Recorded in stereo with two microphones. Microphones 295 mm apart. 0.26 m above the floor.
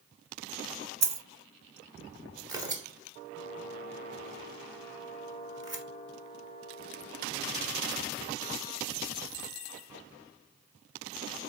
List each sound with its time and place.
1.0 s a dropped coin: 60° right (ahead or behind), 0.6 m
2.5 s tearing paper: 15° right (ahead or behind), 0.9 m